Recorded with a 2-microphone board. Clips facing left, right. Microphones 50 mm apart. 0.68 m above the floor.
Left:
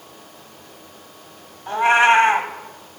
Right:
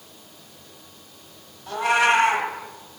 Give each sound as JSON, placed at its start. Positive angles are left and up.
{"t": 1.7, "sound": "a cat meowing", "side_deg": 30, "distance_m": 1.2}